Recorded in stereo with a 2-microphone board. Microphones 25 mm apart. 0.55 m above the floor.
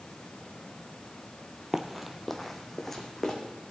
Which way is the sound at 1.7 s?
20° right (ahead or behind).